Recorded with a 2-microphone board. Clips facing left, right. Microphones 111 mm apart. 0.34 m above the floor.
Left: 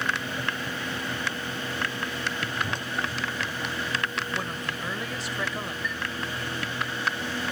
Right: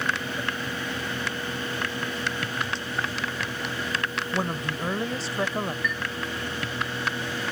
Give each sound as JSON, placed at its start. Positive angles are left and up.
{"t": 2.6, "sound": "a whoosh", "side_deg": 45}
{"t": 4.3, "sound": "a woman speaking", "side_deg": -30}
{"t": 5.8, "sound": "a chime", "side_deg": -70}